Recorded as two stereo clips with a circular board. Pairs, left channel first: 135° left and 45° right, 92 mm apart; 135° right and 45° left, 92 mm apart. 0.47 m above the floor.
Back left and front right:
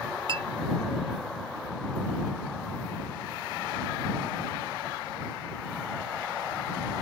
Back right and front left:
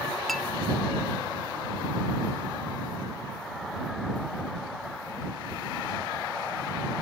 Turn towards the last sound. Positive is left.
turn(degrees=-50)